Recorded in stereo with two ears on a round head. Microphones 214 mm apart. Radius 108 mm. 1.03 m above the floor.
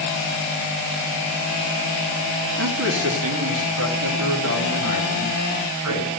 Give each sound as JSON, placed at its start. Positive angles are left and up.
{"t": 2.6, "sound": "a man speaking", "side_deg": -50, "distance_m": 1.7}